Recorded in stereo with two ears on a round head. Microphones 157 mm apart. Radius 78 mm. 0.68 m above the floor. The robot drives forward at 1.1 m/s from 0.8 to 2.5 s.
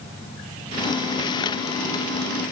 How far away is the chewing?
I don't hear chewing.